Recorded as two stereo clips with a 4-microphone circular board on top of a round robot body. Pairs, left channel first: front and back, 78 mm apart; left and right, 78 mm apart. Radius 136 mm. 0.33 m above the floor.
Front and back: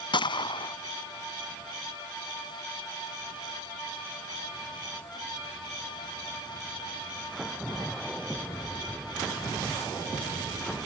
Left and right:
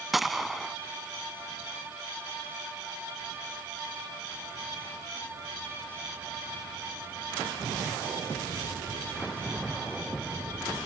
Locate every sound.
0.1 s a gunshot: straight ahead